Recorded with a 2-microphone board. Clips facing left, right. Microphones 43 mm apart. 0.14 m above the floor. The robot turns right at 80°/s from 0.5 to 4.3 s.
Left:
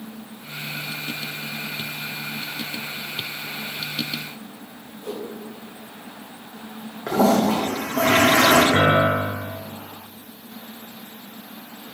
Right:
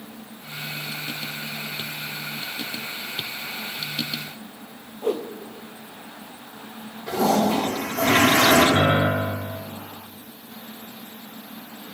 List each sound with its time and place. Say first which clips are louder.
5.0 s a whoosh: right 7 dB; 55° right (ahead or behind), 1.1 m
7.1 s a toilet flushing: left 2 dB; 75° left (ahead or behind), 4 m
8.7 s a piano: left 2 dB; 40° left (ahead or behind), 1.0 m